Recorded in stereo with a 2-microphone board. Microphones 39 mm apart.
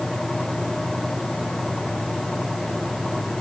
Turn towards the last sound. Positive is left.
No sound to turn to.